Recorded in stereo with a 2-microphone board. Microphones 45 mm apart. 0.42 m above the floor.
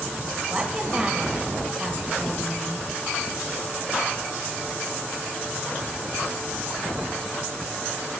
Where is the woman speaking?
20° right (ahead or behind), 2.5 m.